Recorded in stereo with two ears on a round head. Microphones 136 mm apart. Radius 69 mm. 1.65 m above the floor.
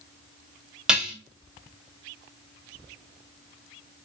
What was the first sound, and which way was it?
Dishes clattering, 5° right (ahead or behind).